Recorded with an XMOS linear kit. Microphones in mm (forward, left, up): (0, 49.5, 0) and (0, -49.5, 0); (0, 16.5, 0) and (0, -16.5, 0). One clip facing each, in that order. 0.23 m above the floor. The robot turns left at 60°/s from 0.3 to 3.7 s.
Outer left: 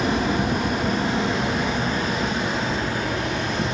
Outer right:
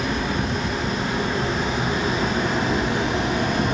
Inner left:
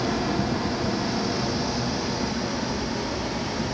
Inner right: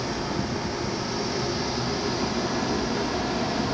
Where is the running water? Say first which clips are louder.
Outer left 3 dB, inner left 3 dB; 80° left, 5.5 m; by 3.8 s 125° right, 5.5 m.